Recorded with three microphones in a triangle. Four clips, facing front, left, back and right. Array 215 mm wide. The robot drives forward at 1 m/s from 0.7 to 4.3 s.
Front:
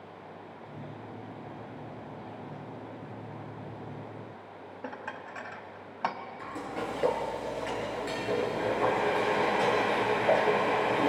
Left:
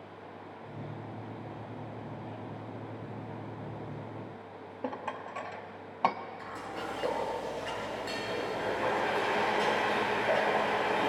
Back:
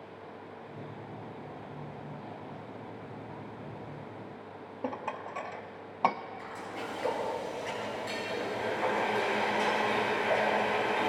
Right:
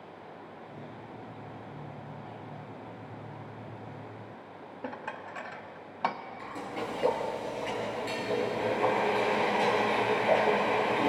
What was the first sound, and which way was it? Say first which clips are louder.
Dishes clattering: left 2 dB, back 5 dB; 150° left.